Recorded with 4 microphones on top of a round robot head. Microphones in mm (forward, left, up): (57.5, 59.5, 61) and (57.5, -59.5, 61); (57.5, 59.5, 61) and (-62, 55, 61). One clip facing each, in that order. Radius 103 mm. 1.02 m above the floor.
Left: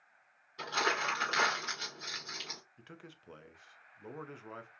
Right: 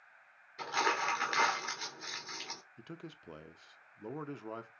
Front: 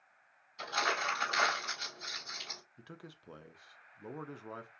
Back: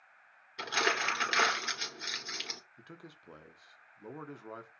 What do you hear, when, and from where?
0.6 s crumpling: 170° left, 2.5 m
2.8 s a man speaking: 80° right, 0.6 m